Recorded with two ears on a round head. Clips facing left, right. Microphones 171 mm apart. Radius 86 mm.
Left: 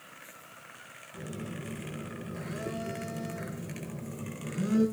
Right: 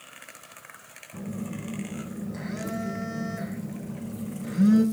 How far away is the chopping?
No chopping in this recording.